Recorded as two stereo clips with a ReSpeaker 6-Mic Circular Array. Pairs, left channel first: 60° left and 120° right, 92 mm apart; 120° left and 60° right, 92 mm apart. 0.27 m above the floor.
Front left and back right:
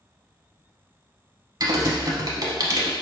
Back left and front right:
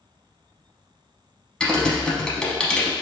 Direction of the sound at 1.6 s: 160° right.